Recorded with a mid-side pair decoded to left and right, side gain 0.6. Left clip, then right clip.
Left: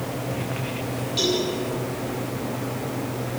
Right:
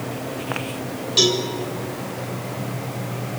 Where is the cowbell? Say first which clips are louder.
Right 5 dB; 50° right, 8 m.